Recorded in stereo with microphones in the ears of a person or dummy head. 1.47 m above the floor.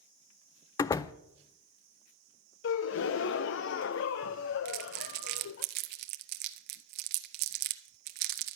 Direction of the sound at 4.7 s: 45° right (ahead or behind).